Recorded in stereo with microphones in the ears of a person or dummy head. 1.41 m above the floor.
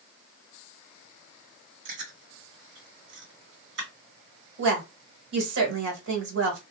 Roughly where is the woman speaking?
Right.